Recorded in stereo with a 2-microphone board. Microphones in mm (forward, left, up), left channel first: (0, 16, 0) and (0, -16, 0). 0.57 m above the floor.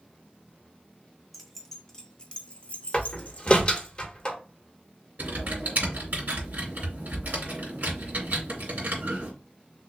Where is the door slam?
30° left (ahead or behind), 1.1 m.